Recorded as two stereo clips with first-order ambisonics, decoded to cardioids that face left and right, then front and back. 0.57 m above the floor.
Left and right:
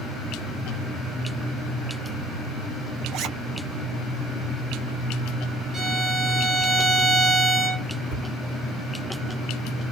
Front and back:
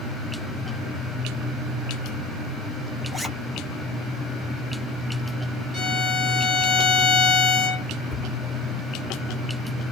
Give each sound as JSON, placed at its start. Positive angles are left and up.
{"t": 3.1, "sound": "a zipper", "azimuth_deg": -95, "distance_m": 0.6}
{"t": 5.7, "sound": "a violin", "azimuth_deg": -30, "distance_m": 0.8}
{"t": 8.1, "sound": "a cupboard door", "azimuth_deg": -95, "distance_m": 1.4}